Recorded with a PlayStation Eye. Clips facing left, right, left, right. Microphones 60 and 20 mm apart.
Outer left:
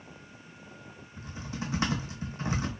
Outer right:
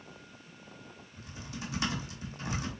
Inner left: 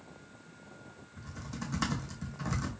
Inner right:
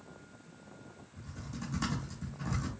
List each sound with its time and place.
1.2 s typing on a keyboard: 30° left (ahead or behind), 1.6 m